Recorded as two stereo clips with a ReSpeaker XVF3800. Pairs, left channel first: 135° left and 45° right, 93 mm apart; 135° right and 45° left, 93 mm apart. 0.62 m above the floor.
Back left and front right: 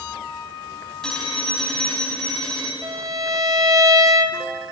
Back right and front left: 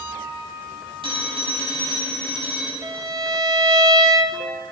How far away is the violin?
About 0.8 m.